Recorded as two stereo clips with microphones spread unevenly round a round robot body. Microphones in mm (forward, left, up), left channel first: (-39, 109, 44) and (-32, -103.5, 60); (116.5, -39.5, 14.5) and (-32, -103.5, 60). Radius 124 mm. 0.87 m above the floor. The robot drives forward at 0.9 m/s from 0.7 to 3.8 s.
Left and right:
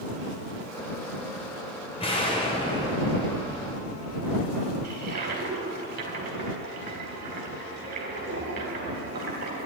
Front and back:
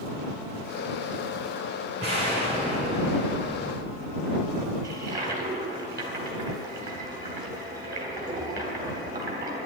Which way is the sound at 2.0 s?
155° left.